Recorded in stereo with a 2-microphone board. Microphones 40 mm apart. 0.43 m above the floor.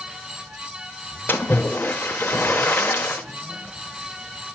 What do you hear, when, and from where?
1.3 s a splash: 60° left (ahead or behind), 0.7 m